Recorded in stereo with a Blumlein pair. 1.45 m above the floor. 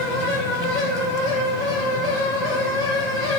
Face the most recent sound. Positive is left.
turn(degrees=30)